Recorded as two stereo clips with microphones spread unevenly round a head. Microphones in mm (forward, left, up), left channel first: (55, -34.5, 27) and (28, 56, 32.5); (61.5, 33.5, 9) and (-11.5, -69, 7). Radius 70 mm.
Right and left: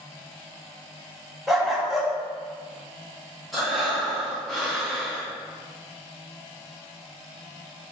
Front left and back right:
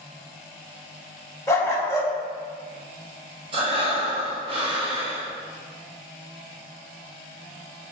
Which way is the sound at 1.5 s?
30° left.